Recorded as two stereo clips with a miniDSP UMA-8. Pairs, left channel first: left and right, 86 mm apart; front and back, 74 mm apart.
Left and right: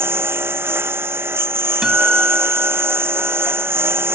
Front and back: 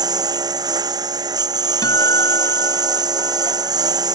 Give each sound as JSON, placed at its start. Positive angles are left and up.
{"t": 0.0, "sound": "a lawn mower", "azimuth_deg": -155}
{"t": 1.8, "sound": "a guitar", "azimuth_deg": -10}